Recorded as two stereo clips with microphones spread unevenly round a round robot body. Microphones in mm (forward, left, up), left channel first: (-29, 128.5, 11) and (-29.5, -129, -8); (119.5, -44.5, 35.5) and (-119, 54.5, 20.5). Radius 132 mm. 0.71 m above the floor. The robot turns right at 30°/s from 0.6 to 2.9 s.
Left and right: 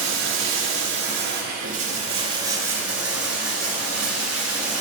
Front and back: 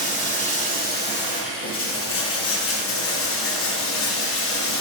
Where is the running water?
75° right, 1.0 m; by 4.8 s 10° right, 1.0 m.